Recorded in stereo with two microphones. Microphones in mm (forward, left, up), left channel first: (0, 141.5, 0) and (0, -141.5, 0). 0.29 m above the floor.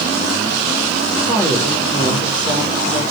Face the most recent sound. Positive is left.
turn(degrees=15)  # may be behind; listen again after turning